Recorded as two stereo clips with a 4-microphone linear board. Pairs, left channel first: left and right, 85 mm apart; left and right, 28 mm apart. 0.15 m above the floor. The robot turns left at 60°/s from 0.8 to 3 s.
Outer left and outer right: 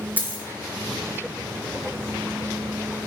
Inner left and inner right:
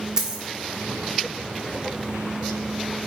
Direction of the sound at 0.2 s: 20° right (ahead or behind).